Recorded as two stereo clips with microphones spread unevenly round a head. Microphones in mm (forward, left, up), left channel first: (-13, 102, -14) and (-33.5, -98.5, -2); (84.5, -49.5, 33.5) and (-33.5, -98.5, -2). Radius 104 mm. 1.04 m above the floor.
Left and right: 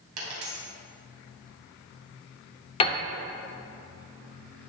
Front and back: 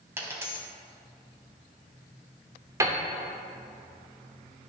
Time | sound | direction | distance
0.2 | a dropped coin | 80° right | 3 m
2.8 | a piano | 120° left | 0.6 m